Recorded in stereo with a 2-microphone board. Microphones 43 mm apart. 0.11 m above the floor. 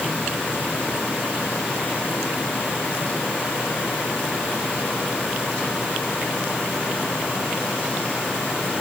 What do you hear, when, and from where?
Only background noise.